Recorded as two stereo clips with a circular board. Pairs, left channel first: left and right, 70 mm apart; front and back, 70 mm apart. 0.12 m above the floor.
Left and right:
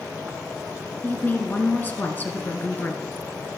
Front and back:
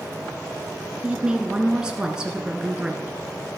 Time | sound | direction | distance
1.0 | a woman speaking | 115° left | 1.3 m